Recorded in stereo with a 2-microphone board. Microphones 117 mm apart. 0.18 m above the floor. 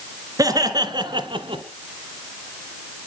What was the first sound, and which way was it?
Laughter, 30° right (ahead or behind).